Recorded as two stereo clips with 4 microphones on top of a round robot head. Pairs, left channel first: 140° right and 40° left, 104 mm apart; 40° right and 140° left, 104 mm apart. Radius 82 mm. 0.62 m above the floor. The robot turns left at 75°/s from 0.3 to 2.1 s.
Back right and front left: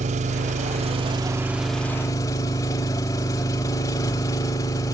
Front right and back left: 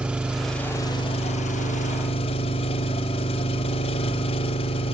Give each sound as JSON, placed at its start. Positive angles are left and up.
{"t": 0.0, "sound": "an engine running", "azimuth_deg": 55, "distance_m": 0.9}